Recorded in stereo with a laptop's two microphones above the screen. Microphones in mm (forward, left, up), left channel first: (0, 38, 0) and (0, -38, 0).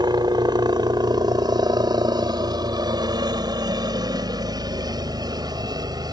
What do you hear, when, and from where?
0.0 s a helicopter: 65° right (ahead or behind); by 6.1 s 60° right (ahead or behind)